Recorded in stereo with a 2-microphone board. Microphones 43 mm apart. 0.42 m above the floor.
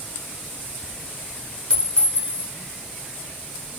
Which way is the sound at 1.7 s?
30° left (ahead or behind).